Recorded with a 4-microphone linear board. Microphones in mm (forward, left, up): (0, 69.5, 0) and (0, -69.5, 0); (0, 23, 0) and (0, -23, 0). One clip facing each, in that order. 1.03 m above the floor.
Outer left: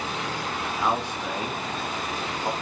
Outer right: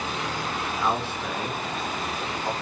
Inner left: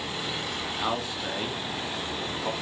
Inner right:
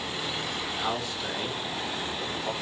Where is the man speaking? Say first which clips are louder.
Outer left 1 dB, inner left 2 dB; 15° left (ahead or behind), 0.9 m.